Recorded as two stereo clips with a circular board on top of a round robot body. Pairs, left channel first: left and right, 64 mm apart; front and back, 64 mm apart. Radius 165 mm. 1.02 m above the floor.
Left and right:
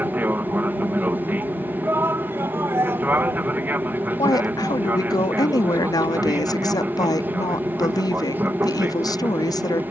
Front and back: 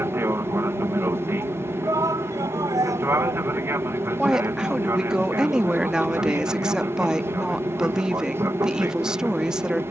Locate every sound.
0.0 s an aircraft: 140° right
1.8 s a shout: 145° right
4.2 s a woman speaking: 100° left